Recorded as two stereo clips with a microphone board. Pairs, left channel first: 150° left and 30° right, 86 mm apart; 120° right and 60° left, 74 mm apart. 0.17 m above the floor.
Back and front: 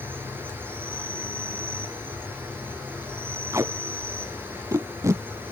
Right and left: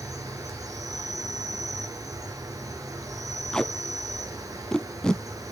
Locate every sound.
0.0 s an insect: 35° left, 2 m
3.5 s tape being pulled: 45° right, 0.5 m